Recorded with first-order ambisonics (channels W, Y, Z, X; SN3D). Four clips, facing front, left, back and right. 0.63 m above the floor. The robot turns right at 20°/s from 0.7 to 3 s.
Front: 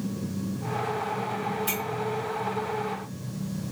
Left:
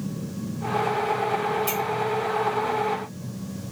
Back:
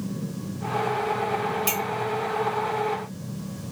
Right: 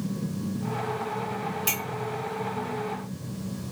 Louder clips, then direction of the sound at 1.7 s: Left 3 dB, back 4 dB; 140° right.